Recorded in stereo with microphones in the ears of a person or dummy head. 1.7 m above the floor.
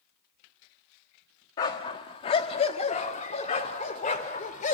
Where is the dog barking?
25° left (ahead or behind), 1.2 m; by 4.8 s 40° left (ahead or behind), 2.5 m.